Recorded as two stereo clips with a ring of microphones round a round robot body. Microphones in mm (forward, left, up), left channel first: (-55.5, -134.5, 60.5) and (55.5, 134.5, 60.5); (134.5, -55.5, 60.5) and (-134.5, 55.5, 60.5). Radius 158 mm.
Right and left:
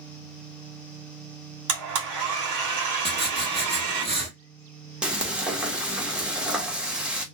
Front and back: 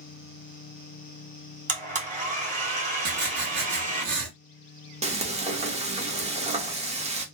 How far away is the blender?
About 1.5 m.